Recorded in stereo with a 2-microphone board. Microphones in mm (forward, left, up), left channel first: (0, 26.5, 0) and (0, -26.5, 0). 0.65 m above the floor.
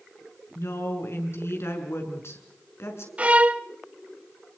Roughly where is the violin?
Right.